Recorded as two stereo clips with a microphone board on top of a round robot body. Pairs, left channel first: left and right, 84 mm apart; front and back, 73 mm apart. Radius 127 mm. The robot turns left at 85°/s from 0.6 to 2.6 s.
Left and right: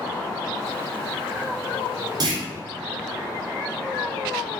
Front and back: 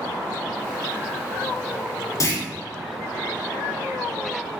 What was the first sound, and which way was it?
A clunk, 45° right.